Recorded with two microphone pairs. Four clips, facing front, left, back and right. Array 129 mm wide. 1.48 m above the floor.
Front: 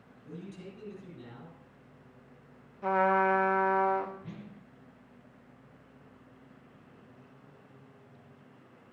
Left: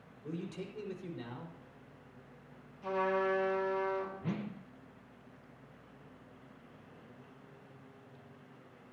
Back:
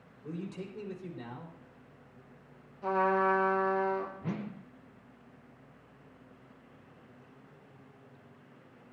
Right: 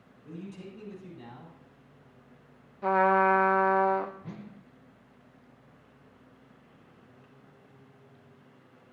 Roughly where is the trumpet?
Right.